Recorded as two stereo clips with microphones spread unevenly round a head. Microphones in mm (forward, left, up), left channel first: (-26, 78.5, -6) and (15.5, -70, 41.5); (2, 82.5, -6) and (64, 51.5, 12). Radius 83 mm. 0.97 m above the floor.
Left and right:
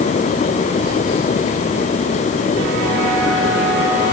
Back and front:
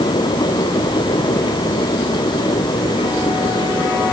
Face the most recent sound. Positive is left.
No sound to turn to.